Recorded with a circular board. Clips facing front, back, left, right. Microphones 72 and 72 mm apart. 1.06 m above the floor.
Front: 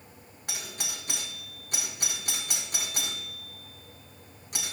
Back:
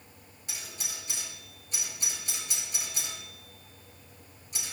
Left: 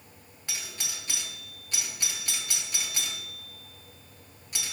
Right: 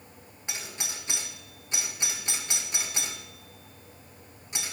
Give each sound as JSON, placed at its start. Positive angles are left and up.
{"t": 0.5, "sound": "a doorbell", "azimuth_deg": -20, "distance_m": 2.0}